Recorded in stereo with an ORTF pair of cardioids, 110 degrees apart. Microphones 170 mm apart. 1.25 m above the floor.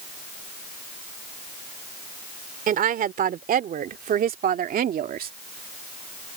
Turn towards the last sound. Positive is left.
turn(degrees=-55)